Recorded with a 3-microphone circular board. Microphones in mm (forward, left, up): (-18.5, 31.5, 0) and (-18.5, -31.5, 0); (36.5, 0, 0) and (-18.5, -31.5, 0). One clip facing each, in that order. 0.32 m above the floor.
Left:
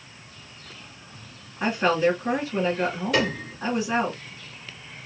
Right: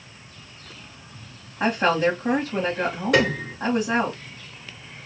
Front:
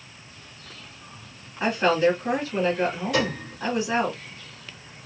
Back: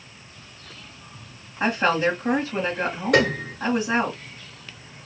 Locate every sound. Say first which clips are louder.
1.6 s a woman speaking: right 1 dB, even; 80° right, 2 m
3.1 s a piano: right 7 dB, back 6 dB; 120° right, 1.9 m